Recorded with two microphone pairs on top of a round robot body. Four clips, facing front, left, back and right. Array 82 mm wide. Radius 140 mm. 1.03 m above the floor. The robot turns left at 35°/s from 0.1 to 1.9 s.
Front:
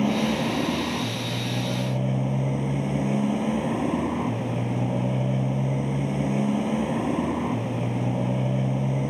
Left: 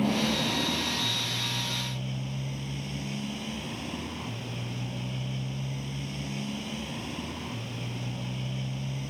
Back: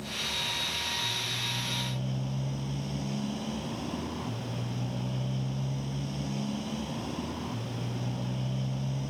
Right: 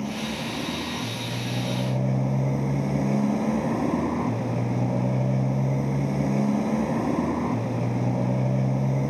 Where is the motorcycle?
15° left; by 9.1 s 50° right.